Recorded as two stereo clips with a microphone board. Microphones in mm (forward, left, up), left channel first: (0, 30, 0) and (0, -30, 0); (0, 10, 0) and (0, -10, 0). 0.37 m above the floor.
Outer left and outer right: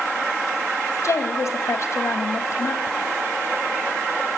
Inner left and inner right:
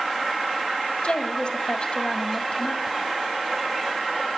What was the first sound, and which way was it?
A woman speaking, 60° left (ahead or behind).